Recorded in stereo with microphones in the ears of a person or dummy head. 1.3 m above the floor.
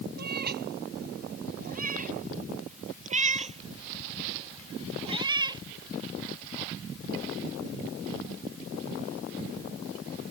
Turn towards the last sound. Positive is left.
turn(degrees=-20)  # may be behind; listen again after turning